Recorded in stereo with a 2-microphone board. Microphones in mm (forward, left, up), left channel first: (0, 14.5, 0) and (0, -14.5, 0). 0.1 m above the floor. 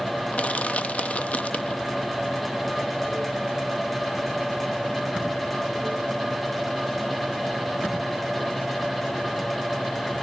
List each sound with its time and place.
0.3 s crushing: 55° left (ahead or behind), 0.7 m